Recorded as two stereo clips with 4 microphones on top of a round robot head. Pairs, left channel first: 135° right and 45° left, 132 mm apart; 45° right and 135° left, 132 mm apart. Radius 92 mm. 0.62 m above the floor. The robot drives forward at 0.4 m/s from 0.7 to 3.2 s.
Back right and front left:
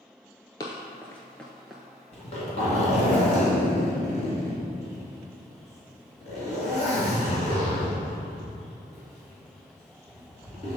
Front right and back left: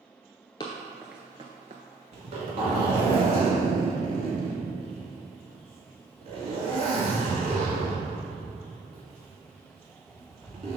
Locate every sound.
0.6 s running footsteps: 85° right, 0.6 m; by 1.8 s 130° left, 0.7 m
2.1 s a zipper: straight behind, 2.5 m